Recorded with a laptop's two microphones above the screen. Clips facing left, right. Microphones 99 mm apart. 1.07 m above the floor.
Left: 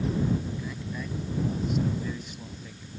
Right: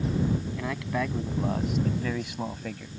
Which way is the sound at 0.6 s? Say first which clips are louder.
Right 6 dB; 85° right.